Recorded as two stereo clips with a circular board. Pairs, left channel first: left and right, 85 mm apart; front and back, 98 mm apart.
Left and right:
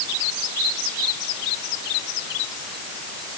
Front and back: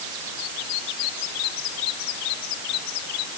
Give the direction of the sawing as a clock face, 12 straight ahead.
No sawing in this recording.